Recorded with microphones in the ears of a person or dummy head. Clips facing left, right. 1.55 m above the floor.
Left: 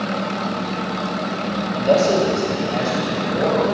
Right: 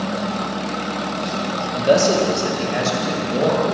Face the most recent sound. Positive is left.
turn(degrees=-35)  # may be behind; listen again after turning